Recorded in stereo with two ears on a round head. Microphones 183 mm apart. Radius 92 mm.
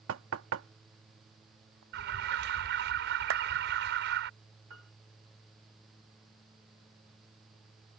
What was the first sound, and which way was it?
Knocking, 75° right (ahead or behind).